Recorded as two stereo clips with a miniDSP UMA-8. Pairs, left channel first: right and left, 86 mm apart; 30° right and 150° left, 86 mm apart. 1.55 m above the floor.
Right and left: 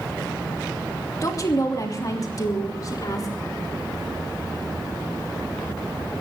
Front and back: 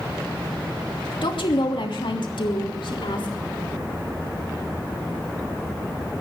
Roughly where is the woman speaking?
Ahead right.